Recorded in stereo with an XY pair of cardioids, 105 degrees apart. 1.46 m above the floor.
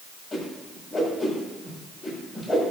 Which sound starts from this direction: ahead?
A whoosh, at 0.3 s.